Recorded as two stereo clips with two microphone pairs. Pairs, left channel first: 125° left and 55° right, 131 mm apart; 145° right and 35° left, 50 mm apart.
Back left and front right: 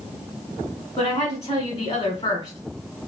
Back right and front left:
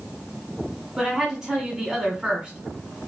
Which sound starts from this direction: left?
A woman speaking, at 1.0 s.